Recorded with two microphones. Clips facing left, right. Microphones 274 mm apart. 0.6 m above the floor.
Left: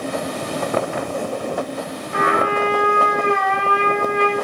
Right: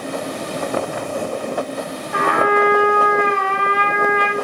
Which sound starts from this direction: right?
A trumpet, at 2.1 s.